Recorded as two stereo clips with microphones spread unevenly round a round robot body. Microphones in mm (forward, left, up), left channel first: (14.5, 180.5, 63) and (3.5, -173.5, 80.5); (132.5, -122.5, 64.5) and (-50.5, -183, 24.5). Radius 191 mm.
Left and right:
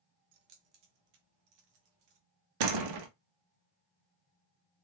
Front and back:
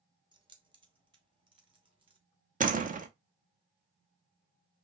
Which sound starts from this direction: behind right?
A door slam, at 2.6 s.